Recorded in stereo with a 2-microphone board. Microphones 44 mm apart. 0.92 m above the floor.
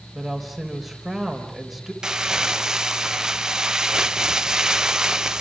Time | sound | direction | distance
0.1 | a woman speaking | centre (ahead or behind) | 3.5 m
2.0 | crumpling | 15° right (ahead or behind) | 0.8 m